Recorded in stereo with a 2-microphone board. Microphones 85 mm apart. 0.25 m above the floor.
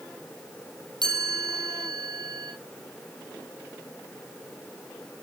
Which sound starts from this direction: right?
A chime, at 1.0 s.